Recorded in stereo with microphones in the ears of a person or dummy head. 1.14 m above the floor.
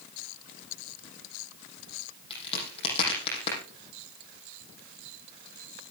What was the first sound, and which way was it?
A crack, 35° left (ahead or behind).